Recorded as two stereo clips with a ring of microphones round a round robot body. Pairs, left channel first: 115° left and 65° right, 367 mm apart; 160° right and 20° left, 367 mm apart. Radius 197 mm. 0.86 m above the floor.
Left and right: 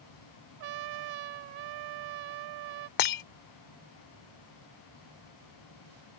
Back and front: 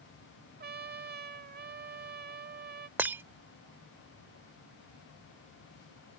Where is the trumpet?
45° right.